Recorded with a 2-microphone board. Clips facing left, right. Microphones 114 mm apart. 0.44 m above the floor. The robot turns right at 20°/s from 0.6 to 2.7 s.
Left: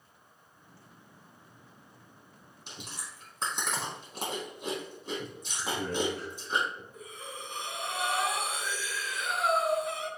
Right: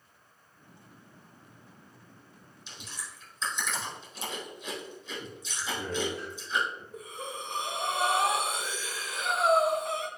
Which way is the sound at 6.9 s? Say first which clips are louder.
Right 4 dB; 75° right (ahead or behind).